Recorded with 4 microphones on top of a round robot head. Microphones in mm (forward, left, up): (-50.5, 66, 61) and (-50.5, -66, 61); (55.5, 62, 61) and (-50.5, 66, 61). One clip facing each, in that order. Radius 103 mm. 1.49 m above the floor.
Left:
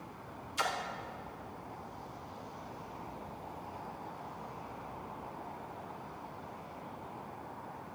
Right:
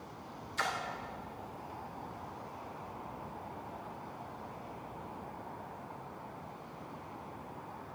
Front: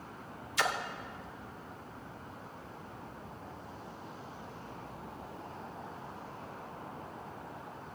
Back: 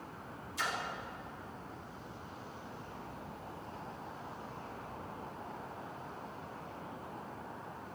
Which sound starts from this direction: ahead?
A splash, at 0.6 s.